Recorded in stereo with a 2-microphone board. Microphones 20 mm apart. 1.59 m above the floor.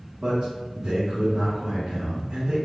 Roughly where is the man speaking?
Right.